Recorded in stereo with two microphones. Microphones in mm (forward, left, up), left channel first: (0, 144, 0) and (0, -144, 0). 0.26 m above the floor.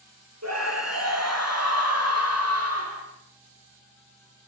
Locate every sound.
0.4 s a scream: 65° right (ahead or behind), 9 m; by 3.0 s 55° right (ahead or behind), 9.5 m